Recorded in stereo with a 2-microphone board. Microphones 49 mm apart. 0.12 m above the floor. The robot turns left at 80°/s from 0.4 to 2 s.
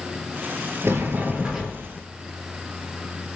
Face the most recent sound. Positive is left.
turn(degrees=150)